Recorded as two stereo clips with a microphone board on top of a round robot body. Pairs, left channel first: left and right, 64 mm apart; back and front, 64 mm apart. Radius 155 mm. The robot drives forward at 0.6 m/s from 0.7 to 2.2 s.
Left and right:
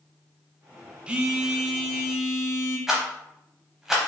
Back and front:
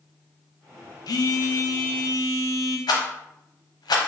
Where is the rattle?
175° right, 0.8 m.